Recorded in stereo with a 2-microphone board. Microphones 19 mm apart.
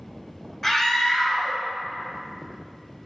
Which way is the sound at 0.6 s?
20° left (ahead or behind).